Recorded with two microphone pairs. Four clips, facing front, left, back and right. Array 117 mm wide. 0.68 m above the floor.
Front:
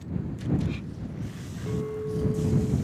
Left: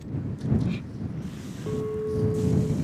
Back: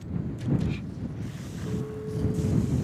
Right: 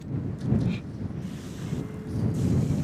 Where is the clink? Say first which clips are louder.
Left 8 dB, front 4 dB; 75° left.